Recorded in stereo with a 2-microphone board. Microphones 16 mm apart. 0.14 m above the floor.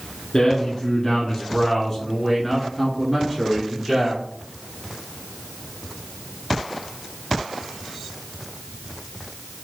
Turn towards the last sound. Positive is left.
turn(degrees=-10)  # may be behind; listen again after turning